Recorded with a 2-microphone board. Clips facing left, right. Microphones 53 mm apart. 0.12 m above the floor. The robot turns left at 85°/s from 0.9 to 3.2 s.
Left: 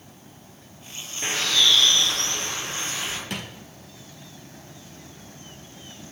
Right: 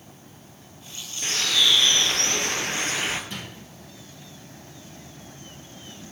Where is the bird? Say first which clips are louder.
Left 1 dB; 25° left, 1.1 m; by 3.2 s 145° right, 1.1 m.